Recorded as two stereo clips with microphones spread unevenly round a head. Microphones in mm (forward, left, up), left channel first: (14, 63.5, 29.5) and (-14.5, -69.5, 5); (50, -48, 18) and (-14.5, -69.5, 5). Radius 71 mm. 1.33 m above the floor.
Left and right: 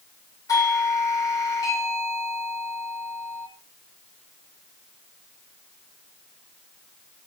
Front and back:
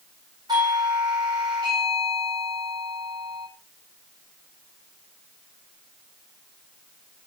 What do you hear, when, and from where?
0.5 s a doorbell: 145° left, 8.5 m